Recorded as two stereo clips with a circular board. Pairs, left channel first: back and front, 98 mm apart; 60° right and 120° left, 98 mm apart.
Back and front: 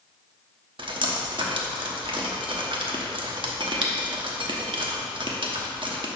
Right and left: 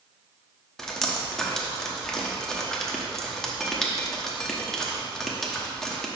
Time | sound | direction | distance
0.8 | dripping | 25° left | 0.9 m